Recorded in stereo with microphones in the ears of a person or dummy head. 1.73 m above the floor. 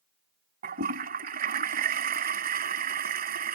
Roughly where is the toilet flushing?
Right.